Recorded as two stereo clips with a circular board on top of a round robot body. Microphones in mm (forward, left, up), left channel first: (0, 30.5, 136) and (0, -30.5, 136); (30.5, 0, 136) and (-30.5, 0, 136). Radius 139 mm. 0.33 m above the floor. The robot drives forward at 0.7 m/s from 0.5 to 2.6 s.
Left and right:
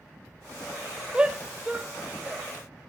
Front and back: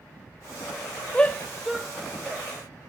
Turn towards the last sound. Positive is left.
turn(degrees=-160)